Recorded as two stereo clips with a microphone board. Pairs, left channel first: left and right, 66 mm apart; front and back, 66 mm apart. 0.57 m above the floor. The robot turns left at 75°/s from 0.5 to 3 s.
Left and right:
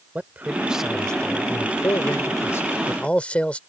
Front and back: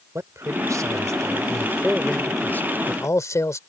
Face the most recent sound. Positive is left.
turn(degrees=20)